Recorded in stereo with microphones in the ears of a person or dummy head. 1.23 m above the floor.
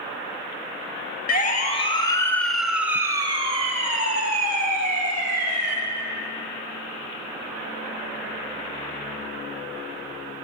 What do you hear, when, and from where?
1.3 s a siren: 50° left (ahead or behind), 2.5 m; by 5.8 s 60° right (ahead or behind), 5.5 m